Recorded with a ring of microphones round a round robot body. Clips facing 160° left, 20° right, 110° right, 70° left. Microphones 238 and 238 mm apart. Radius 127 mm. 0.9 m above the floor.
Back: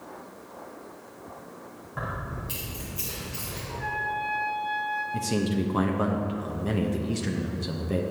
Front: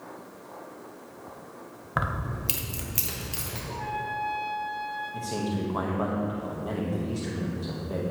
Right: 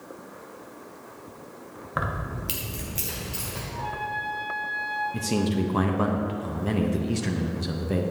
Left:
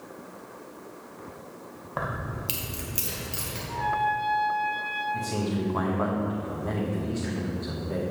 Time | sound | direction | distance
2.0 | keys jangling | 40° right | 0.6 m
3.7 | a trumpet | 85° left | 1.3 m
5.1 | a man speaking | 155° right | 0.7 m